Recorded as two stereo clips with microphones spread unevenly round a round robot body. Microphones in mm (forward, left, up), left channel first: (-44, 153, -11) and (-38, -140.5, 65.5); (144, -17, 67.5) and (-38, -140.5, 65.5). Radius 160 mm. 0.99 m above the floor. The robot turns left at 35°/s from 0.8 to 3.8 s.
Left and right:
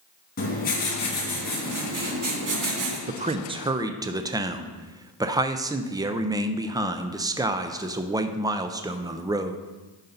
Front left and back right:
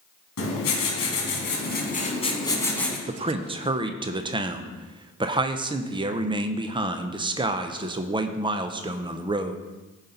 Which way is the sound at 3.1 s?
160° right.